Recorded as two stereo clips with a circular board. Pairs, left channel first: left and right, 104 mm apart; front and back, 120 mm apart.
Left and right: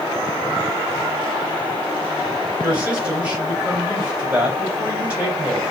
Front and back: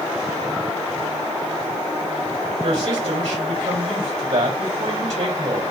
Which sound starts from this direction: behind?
A woman speaking, at 2.6 s.